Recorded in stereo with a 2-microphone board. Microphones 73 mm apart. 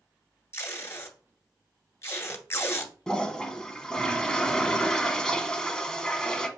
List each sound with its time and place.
0.5 s tape being pulled: 40° left (ahead or behind), 0.9 m
3.1 s a toilet flushing: 10° left (ahead or behind), 0.6 m